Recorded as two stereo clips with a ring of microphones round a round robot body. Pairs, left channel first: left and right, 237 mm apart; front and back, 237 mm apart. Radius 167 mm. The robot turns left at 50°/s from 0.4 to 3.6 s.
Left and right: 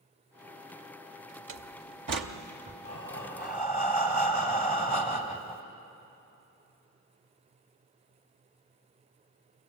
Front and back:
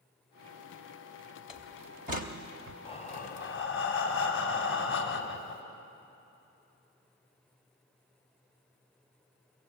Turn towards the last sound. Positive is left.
turn(degrees=30)